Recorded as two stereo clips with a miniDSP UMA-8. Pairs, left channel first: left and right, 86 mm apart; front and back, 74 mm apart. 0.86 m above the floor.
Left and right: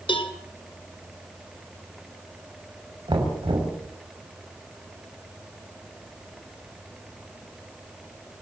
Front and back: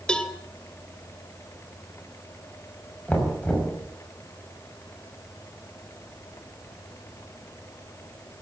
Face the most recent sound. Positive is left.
turn(degrees=-70)